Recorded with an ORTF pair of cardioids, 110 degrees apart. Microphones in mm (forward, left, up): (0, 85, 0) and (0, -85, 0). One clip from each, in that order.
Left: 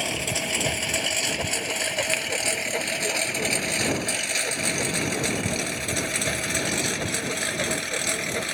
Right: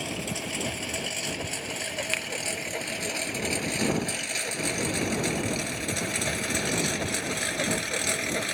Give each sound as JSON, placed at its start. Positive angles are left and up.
{"t": 0.0, "sound": "a lawn mower", "azimuth_deg": 40}
{"t": 2.1, "sound": "a finger snap", "azimuth_deg": 5}